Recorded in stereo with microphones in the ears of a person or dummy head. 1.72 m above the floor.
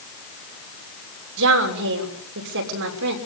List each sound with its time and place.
1.4 s a woman speaking: 65° right (ahead or behind), 6 m